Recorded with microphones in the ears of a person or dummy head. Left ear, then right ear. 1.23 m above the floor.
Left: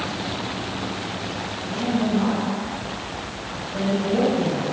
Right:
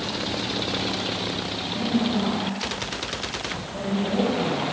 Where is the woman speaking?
20° right (ahead or behind), 8 m.